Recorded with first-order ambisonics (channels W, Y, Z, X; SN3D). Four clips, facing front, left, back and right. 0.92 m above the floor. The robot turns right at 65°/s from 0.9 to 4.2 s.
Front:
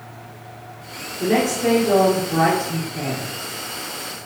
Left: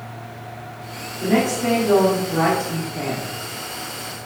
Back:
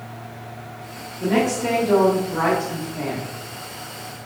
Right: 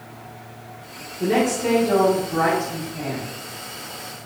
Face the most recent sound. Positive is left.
turn(degrees=150)